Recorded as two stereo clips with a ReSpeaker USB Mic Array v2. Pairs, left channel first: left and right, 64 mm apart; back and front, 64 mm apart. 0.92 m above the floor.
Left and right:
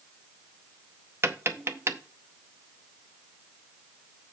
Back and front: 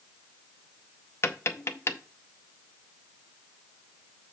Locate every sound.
1.2 s tapping: 130° right, 0.8 m